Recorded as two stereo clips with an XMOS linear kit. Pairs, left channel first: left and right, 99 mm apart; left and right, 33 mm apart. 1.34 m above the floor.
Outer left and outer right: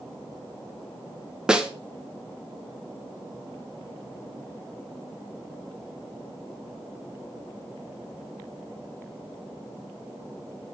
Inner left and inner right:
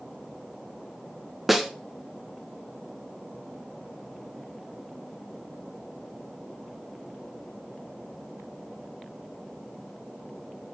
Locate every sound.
1.5 s a snare drum: 10° right (ahead or behind), 1.2 m